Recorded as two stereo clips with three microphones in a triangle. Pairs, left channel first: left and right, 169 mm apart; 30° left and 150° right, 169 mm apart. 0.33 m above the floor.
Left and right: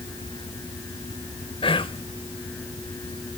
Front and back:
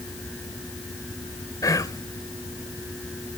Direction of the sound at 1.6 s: 80° left.